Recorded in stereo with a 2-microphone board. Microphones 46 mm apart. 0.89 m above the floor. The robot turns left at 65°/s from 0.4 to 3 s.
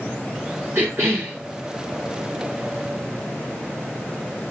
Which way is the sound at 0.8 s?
80° right.